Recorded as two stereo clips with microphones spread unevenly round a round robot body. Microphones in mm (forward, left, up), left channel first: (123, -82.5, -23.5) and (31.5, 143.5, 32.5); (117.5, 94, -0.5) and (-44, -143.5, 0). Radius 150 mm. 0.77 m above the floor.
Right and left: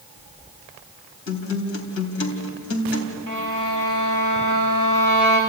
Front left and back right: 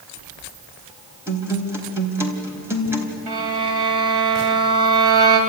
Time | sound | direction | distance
1.3 | a guitar | 45° right | 3.5 m
3.3 | a violin | 145° right | 3.5 m